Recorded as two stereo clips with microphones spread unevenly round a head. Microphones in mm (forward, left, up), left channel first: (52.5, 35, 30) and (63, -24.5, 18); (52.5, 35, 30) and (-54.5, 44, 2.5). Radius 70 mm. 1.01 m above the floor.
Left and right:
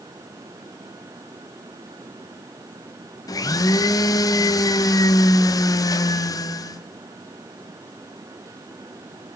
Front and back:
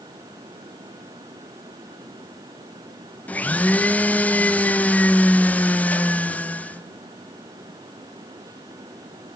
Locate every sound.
3.3 s a blender: 75° left, 0.6 m